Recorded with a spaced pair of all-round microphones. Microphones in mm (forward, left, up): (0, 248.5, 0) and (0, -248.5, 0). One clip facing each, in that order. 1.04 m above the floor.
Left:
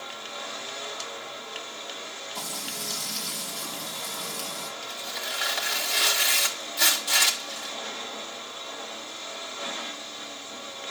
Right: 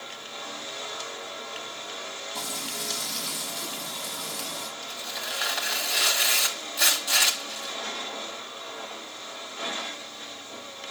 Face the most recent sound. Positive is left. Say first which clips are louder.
# left 1 dB
turn(degrees=25)  # may be behind; listen again after turning